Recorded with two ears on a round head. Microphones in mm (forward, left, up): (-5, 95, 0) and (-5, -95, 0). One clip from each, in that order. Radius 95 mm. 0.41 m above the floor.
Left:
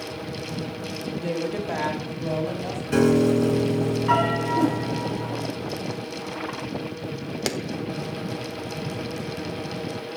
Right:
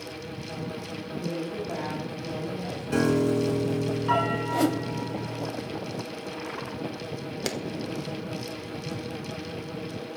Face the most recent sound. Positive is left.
turn(degrees=0)  # may be behind; listen again after turning